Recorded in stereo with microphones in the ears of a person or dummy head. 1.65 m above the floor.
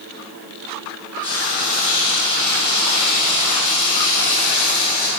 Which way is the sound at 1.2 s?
45° left (ahead or behind).